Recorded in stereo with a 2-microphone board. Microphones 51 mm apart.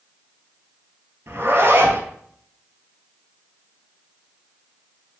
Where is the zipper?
50° right (ahead or behind), 2 m.